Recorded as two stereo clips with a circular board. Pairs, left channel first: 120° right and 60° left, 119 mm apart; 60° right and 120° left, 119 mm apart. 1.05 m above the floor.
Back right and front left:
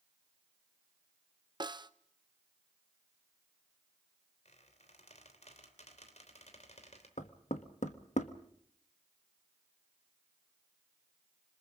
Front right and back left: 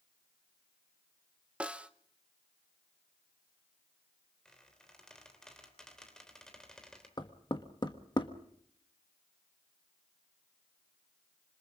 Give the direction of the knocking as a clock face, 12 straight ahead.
4 o'clock.